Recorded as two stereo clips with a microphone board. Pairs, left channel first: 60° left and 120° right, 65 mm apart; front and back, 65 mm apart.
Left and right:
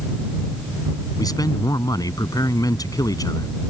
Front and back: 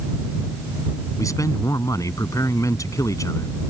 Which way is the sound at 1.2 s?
35° left.